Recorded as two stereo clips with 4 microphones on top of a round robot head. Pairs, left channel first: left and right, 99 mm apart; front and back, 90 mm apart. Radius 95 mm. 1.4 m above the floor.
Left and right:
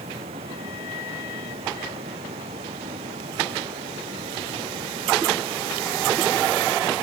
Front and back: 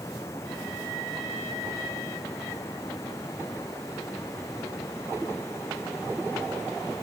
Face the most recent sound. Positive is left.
turn(degrees=-65)